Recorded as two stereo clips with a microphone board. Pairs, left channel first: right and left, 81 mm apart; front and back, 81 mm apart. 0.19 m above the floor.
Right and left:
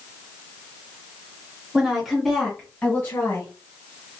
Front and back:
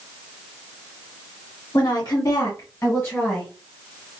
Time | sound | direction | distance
1.7 | a woman speaking | 10° left | 1.9 m